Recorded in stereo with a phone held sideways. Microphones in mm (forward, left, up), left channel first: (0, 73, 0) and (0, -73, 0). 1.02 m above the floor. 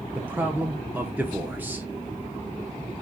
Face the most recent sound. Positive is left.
turn(degrees=-15)  # may be behind; listen again after turning